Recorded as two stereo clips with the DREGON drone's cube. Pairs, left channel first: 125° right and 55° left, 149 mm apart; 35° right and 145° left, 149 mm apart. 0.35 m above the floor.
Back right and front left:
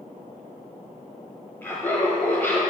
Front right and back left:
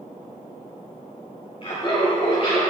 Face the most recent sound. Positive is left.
turn(degrees=-55)